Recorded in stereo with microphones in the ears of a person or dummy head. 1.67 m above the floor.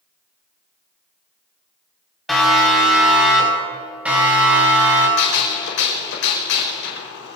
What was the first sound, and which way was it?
A siren, 5° left (ahead or behind).